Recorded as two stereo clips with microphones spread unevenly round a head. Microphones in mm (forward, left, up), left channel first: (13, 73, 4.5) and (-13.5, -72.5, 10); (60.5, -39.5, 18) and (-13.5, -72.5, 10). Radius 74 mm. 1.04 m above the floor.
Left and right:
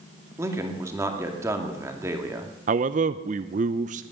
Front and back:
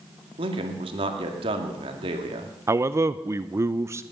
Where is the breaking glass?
No breaking glass in this recording.